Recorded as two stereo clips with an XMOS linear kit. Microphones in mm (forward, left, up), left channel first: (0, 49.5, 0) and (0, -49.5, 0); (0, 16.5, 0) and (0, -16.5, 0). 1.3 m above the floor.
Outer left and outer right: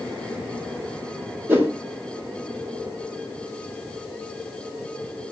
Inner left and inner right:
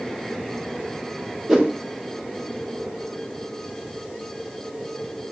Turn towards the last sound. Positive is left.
turn(degrees=-20)  # may be behind; listen again after turning